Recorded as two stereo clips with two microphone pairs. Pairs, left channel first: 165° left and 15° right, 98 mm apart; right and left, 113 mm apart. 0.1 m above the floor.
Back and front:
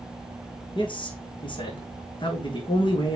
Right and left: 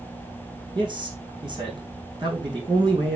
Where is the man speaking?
135° left, 4.5 m.